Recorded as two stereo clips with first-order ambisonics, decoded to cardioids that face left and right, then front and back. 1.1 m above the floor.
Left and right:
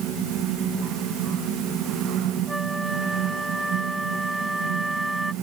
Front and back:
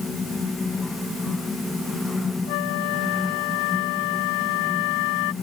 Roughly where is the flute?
Ahead.